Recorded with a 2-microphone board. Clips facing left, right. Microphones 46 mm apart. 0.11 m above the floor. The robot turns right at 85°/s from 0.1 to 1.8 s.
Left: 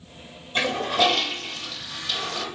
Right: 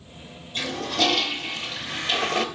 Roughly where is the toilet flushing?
Behind left.